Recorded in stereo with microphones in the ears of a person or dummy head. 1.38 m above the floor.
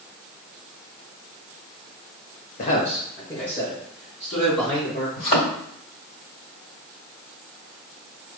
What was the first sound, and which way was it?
A man speaking, 55° left (ahead or behind).